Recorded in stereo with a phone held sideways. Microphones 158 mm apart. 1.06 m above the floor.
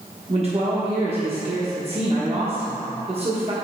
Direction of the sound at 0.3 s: 40° right (ahead or behind).